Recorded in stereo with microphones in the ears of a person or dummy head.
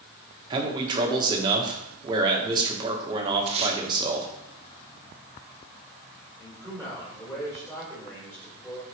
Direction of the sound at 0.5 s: 20° right (ahead or behind).